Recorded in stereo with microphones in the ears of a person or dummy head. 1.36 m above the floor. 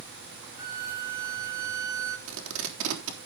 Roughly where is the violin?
Centre.